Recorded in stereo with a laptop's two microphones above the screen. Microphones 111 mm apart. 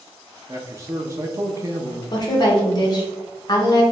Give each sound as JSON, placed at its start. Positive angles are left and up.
{"t": 0.5, "sound": "a man speaking", "side_deg": -30, "distance_m": 0.5}
{"t": 2.1, "sound": "a woman speaking", "side_deg": 40, "distance_m": 1.0}